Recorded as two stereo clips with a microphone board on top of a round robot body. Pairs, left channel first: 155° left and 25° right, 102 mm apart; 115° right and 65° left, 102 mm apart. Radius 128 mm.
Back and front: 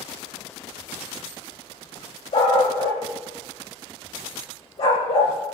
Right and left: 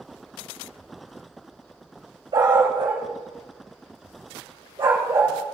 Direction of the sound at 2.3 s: 115° left.